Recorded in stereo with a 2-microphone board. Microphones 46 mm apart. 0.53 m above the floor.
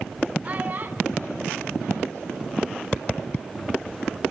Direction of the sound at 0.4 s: 35° right (ahead or behind).